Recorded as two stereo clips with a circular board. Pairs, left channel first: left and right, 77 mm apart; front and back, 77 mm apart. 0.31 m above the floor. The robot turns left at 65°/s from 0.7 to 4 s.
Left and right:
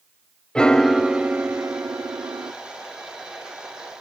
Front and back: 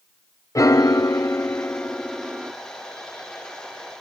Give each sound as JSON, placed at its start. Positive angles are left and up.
{"t": 0.6, "sound": "a piano", "azimuth_deg": 15, "distance_m": 0.5}